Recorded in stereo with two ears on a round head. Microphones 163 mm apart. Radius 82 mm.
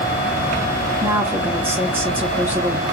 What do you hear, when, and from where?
1.0 s a woman speaking: 15° right (ahead or behind), 0.8 m